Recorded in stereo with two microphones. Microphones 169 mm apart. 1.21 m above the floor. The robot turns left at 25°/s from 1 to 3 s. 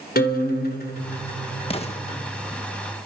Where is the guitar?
70° left (ahead or behind), 3.5 m; by 2.2 s 40° left (ahead or behind), 3.5 m.